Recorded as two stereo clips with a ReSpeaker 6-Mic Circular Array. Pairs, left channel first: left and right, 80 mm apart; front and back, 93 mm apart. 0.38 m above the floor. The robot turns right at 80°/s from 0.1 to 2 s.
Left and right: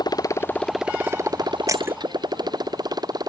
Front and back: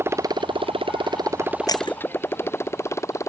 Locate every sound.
0.0 s a motorcycle: 115° left; by 3.3 s 55° right
1.7 s breaking glass: 45° right; by 2.0 s 25° right